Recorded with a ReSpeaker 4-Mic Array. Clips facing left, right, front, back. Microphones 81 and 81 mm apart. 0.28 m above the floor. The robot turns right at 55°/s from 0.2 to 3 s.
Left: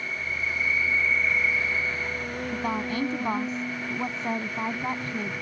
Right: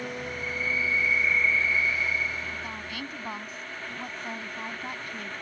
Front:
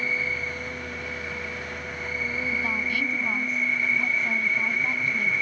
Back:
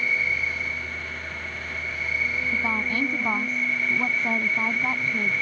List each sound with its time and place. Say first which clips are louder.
0.0 s an insect: left 2 dB, back 2 dB; 60° right; by 5.4 s 95° left
2.5 s a woman speaking: left 9 dB, back 3 dB; 110° left; by 5.3 s 140° left